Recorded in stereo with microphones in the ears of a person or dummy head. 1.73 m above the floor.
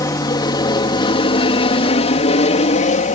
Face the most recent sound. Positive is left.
turn(degrees=35)  # may be behind; listen again after turning